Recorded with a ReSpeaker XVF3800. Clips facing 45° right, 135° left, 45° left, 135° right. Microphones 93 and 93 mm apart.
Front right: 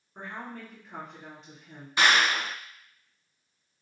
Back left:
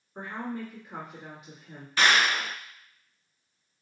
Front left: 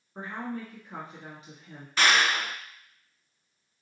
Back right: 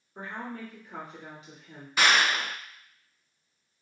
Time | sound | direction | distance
0.1 | a woman speaking | 55° left | 1.5 m
2.0 | a clap | 70° right | 0.9 m